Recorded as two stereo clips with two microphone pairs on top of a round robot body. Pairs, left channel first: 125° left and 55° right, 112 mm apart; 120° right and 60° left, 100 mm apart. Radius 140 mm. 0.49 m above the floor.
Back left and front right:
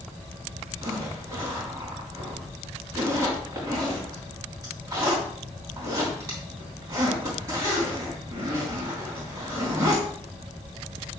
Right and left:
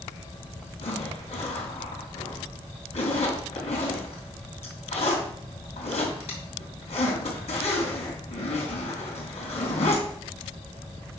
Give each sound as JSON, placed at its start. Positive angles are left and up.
{"t": 0.8, "sound": "a zipper", "azimuth_deg": -120, "distance_m": 3.0}